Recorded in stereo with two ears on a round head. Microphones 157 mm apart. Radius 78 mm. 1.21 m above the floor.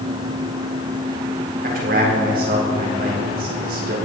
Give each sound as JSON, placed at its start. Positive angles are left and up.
{"t": 1.6, "sound": "a man speaking", "side_deg": -55, "distance_m": 4.5}